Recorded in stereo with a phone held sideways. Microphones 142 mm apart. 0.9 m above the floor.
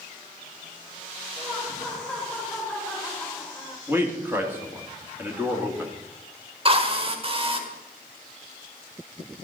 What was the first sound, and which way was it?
Laughter, 5° left (ahead or behind).